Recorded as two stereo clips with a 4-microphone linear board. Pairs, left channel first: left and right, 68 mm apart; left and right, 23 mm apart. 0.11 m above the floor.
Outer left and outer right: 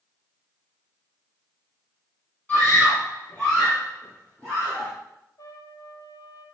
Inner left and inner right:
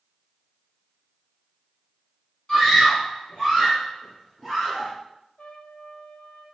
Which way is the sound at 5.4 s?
65° left (ahead or behind).